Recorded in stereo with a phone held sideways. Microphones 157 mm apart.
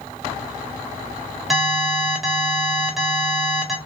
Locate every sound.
1.5 s an alarm: centre (ahead or behind), 1.4 m